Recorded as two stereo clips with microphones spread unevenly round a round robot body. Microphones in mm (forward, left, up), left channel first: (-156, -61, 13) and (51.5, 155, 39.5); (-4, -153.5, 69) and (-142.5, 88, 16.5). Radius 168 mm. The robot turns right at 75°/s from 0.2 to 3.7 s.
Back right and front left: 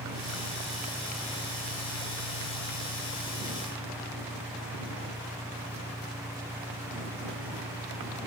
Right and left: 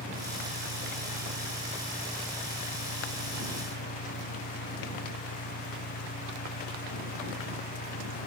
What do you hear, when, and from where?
0.0 s an engine running: 65° left; by 8.3 s 30° right